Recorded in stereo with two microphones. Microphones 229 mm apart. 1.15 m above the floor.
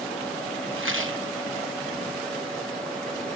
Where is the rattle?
60° right (ahead or behind), 0.7 m.